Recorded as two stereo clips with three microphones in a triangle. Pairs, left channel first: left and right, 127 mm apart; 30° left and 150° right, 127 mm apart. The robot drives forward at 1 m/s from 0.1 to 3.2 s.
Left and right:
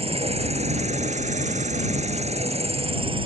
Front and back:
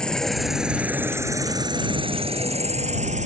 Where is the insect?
55° right; by 3.3 s 135° right.